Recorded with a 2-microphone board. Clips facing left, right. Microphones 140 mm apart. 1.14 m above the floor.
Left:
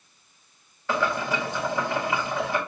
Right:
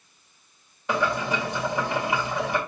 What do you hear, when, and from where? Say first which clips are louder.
0.9 s boiling: right 1 dB; 20° right (ahead or behind), 4.5 m